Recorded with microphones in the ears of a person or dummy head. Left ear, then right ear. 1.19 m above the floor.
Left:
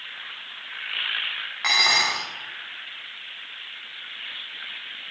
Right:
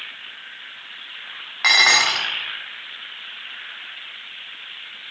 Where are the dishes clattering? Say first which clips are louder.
Right 5 dB; 25° right (ahead or behind), 0.7 m.